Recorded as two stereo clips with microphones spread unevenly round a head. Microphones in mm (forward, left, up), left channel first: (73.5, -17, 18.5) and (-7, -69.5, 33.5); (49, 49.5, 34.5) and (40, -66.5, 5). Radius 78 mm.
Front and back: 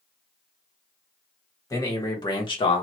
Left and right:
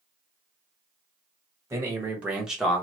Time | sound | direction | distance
1.7 | a man speaking | 20° right | 1.5 m